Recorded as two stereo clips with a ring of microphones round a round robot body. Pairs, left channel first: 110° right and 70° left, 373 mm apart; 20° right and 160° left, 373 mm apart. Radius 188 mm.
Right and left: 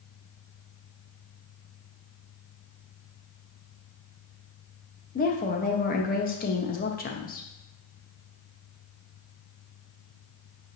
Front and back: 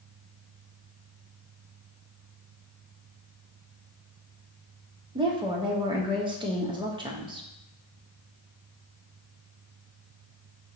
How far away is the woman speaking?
About 0.6 m.